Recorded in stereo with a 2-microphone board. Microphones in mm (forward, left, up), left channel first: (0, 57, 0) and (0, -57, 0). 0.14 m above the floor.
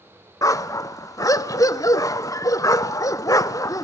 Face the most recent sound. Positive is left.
turn(degrees=30)  # may be behind; listen again after turning